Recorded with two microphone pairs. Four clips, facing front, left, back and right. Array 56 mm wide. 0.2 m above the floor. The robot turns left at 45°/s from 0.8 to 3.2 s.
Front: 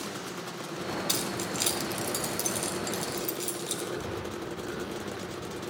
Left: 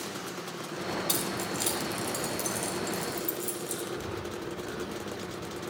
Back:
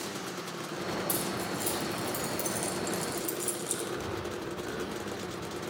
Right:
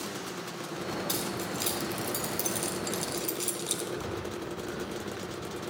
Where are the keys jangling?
30° left, 1.2 m; by 3.8 s 65° right, 1.2 m.